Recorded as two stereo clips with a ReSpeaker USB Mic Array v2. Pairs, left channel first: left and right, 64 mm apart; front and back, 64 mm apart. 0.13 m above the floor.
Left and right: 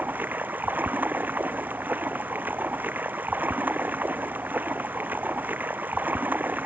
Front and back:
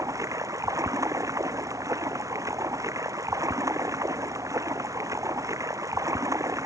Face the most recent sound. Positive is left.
turn(degrees=-155)